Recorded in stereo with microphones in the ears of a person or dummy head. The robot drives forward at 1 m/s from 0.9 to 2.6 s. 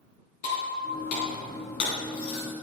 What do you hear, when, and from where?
0.4 s breaking glass: 45° left (ahead or behind), 4 m; by 2.5 s 65° left (ahead or behind), 3 m